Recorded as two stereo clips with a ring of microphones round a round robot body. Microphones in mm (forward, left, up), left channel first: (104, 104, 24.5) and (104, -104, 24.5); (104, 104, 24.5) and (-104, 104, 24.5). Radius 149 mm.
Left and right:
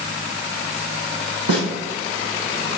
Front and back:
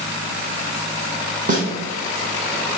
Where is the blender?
No blender in this recording.